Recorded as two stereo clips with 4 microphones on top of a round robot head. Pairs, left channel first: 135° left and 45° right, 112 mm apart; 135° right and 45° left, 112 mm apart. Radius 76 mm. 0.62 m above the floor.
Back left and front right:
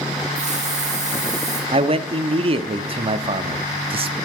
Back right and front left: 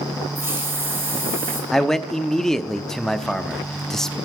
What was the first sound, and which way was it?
A hiss, 20° right.